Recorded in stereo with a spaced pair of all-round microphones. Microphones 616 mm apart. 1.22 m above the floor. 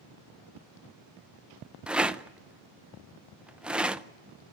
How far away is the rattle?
About 0.5 m.